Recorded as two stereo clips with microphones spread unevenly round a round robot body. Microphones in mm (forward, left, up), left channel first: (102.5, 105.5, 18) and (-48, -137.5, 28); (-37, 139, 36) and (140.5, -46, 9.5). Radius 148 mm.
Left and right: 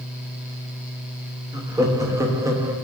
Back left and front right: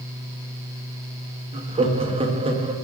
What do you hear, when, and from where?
1.5 s laughter: 50° right, 0.8 m